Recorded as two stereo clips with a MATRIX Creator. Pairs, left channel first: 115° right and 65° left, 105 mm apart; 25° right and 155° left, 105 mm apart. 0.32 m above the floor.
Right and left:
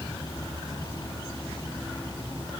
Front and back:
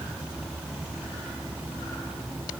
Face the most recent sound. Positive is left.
No sound to turn to.